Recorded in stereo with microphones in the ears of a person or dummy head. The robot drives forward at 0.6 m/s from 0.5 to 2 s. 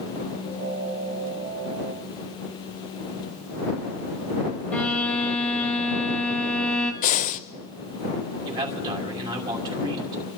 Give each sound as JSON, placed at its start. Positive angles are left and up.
{"t": 4.7, "sound": "a violin", "side_deg": 5, "distance_m": 1.3}
{"t": 7.0, "sound": "breathing", "side_deg": 35, "distance_m": 0.5}
{"t": 8.4, "sound": "a man speaking", "side_deg": -25, "distance_m": 2.5}